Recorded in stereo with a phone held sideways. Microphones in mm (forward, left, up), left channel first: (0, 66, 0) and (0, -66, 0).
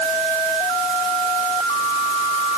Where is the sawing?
No sawing in this recording.